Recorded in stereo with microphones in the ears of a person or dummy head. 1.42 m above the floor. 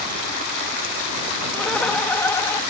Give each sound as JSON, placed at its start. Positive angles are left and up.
{"t": 1.5, "sound": "laughter", "side_deg": 5}